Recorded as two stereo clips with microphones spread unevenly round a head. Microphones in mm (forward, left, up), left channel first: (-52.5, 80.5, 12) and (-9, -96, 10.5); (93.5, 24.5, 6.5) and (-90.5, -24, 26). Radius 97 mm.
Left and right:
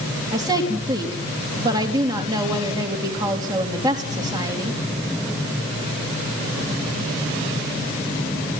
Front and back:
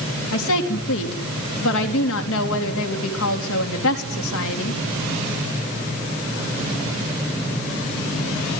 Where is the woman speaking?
5° right, 4 m.